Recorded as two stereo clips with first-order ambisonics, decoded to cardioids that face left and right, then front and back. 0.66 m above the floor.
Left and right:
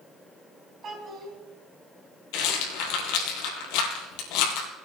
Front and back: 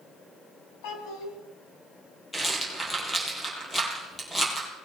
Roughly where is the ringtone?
I don't hear a ringtone.